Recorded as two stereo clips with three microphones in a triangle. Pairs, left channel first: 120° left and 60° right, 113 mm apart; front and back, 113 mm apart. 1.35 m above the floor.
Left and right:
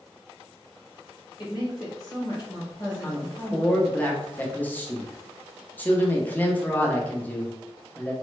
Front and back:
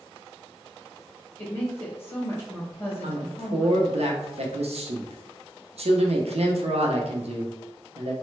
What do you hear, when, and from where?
1.4 s a woman speaking: 70° left, 1.2 m
3.0 s a woman speaking: 165° right, 0.6 m